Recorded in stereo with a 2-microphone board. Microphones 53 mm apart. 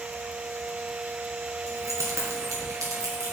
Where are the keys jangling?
85° right, 3.5 m.